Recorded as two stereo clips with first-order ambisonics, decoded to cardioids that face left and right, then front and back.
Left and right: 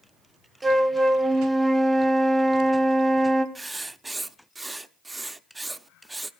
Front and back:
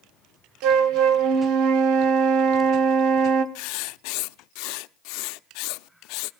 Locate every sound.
0.6 s a flute: 165° right, 1.2 m
3.5 s writing: 10° right, 0.6 m